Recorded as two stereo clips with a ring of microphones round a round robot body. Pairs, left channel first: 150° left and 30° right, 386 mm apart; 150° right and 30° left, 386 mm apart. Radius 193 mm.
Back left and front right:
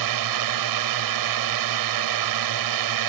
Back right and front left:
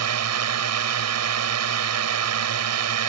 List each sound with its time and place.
0.0 s a drone: 10° right